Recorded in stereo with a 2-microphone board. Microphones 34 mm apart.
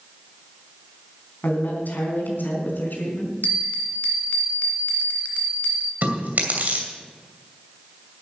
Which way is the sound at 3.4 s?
60° left (ahead or behind).